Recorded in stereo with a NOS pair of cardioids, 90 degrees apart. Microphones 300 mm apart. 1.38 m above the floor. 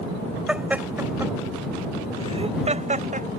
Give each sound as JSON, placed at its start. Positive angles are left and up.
{"t": 0.5, "sound": "laughter", "azimuth_deg": -5}